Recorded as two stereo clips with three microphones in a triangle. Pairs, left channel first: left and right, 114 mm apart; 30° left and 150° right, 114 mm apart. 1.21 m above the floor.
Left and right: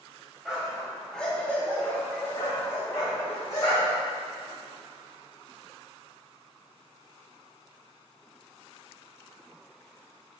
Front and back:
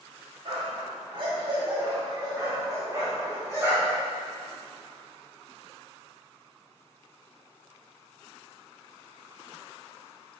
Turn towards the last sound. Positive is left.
turn(degrees=145)